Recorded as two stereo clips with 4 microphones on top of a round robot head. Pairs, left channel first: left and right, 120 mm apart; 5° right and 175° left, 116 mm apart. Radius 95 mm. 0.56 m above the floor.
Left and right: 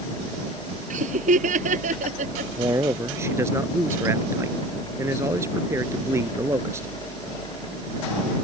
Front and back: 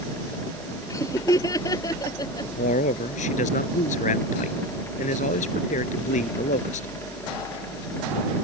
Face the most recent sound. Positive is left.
turn(degrees=-20)